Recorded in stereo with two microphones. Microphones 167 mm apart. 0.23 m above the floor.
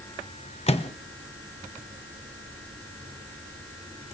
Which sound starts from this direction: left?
A microwave, at 0.7 s.